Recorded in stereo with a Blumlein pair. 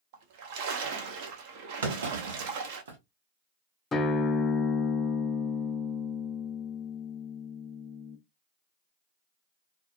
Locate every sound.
0.1 s a splash: 50° right, 0.9 m
1.8 s a clunk: 65° right, 0.9 m
3.9 s a guitar: 20° left, 0.6 m